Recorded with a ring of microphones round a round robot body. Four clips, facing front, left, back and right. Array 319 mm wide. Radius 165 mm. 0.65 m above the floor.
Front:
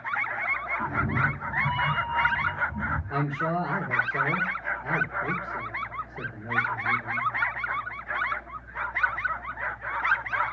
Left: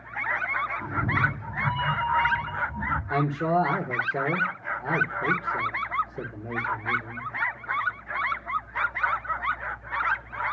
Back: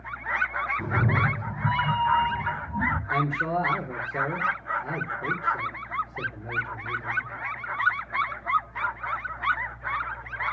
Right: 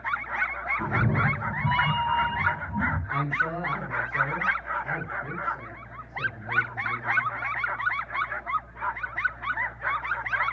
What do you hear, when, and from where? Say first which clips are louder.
0.8 s a cat meowing: right 3 dB, even; 145° right, 1.5 m; by 3.0 s 140° right, 3 m
3.1 s a man speaking: left 4 dB, back 1 dB; 105° left, 2.5 m